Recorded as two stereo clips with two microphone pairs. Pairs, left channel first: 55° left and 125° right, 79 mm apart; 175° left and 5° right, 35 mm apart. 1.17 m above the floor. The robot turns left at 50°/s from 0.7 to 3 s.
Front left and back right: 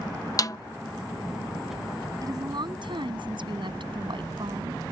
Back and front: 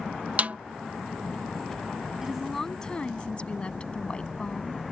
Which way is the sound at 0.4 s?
25° left.